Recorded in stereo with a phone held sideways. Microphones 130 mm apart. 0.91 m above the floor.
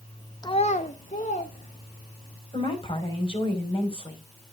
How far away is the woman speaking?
About 4.5 m.